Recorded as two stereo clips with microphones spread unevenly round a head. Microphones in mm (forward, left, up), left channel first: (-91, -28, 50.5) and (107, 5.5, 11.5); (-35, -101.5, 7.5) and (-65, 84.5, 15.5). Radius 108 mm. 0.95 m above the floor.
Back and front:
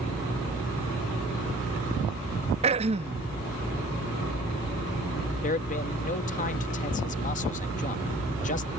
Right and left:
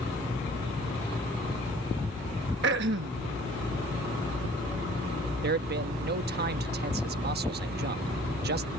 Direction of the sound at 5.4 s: 135° left.